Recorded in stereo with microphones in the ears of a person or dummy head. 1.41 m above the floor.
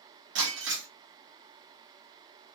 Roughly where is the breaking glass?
Right.